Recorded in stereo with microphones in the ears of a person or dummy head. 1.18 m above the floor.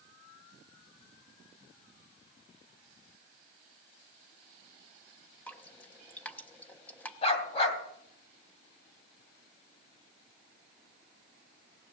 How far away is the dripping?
About 1.1 m.